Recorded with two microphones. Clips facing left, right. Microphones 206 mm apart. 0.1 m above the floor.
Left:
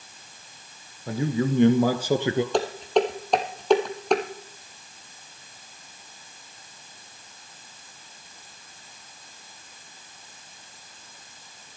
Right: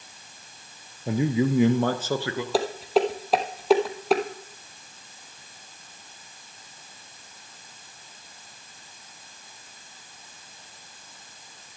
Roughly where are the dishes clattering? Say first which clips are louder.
Even; centre.